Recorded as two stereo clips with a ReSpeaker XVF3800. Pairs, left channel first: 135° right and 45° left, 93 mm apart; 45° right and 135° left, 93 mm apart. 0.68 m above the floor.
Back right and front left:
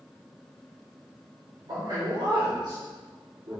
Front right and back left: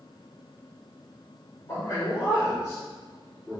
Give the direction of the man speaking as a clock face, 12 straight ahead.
12 o'clock.